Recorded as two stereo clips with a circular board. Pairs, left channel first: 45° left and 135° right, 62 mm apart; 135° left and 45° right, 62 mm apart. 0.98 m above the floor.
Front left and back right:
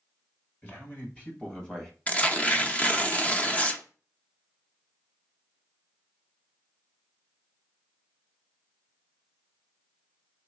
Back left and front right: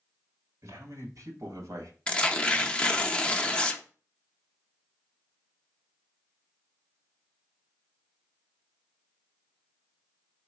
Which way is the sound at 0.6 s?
15° right.